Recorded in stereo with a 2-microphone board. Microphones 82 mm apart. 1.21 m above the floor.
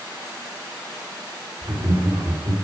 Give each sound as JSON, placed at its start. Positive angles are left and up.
{"t": 1.6, "sound": "laughter", "side_deg": -55, "distance_m": 3.0}